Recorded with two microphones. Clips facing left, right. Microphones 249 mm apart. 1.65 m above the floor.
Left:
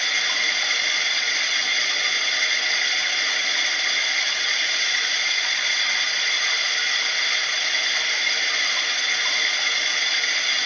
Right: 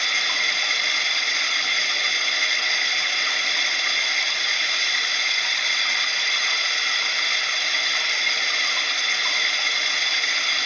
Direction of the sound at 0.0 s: Centre (ahead or behind).